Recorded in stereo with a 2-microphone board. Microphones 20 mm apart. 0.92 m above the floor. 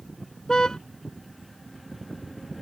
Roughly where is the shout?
I don't hear a shout.